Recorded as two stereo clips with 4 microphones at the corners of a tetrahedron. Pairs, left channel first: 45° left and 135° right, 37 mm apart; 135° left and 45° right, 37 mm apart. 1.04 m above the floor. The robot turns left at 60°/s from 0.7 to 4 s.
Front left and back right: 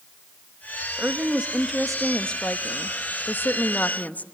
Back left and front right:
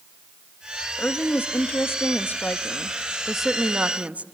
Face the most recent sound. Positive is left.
turn(degrees=5)